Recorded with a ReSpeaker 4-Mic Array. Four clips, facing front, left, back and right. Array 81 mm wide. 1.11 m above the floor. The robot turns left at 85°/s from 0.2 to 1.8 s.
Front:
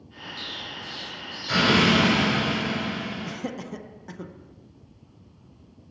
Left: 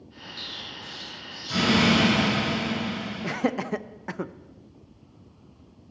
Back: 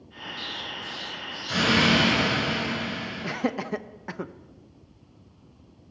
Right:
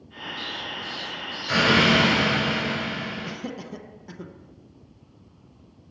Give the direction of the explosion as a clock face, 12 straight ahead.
11 o'clock.